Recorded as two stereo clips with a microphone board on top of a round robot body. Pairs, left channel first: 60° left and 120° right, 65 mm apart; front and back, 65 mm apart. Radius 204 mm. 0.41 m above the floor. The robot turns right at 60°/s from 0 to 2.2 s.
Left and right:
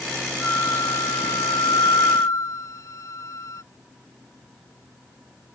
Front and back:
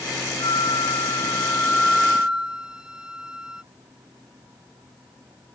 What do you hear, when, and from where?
0.4 s a flute: 5° right; by 3.6 s 100° left